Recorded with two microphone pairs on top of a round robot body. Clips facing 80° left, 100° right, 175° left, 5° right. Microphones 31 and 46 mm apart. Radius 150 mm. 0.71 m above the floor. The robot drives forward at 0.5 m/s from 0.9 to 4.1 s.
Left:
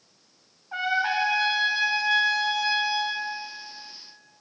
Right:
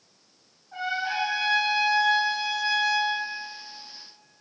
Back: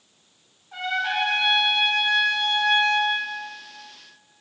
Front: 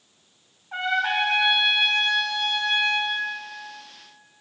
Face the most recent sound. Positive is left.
turn(degrees=155)